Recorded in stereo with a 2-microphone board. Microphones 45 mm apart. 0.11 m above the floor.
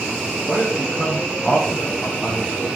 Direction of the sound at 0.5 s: 5° right (ahead or behind).